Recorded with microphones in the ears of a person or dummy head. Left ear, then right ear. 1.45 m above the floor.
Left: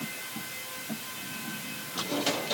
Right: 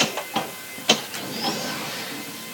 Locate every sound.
Only background noise.